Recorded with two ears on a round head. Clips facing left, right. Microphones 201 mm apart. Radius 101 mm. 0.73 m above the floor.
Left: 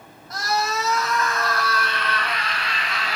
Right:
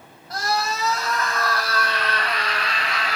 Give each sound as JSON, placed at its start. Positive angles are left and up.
{"t": 0.3, "sound": "a scream", "side_deg": -30, "distance_m": 5.0}